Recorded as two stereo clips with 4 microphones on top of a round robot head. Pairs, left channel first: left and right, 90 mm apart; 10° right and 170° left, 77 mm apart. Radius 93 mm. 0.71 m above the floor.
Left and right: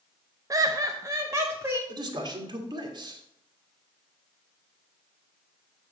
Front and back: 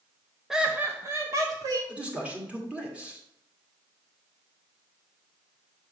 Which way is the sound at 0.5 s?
110° right.